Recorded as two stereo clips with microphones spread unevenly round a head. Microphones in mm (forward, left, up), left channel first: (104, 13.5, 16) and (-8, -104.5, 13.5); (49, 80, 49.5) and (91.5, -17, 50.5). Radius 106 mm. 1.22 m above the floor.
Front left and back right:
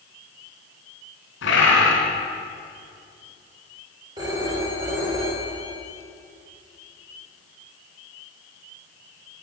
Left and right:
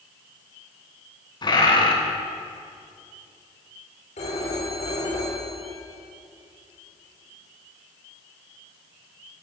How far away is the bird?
About 3.5 m.